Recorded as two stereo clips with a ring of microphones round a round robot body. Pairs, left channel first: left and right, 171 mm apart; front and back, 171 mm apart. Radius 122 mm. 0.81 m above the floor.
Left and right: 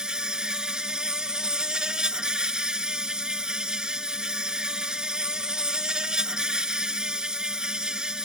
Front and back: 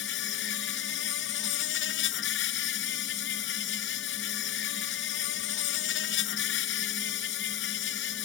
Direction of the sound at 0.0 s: 5° right.